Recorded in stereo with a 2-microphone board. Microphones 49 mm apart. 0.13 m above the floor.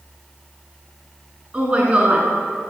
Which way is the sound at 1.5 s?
25° right (ahead or behind).